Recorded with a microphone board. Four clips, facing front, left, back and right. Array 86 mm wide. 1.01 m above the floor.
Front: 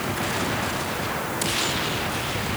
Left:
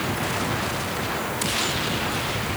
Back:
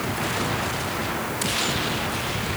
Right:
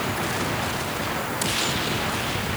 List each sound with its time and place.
Only background noise.